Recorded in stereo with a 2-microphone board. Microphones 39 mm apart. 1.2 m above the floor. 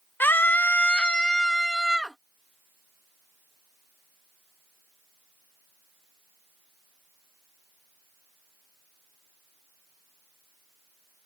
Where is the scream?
60° left (ahead or behind); by 2.2 s centre (ahead or behind).